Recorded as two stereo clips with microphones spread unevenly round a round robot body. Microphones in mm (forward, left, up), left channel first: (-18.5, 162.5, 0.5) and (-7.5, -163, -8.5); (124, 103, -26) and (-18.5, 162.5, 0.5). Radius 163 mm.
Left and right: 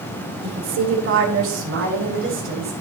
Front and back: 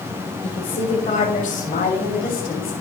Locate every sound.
0.4 s a woman speaking: 60° right, 1.7 m; by 2.7 s 35° right, 3.5 m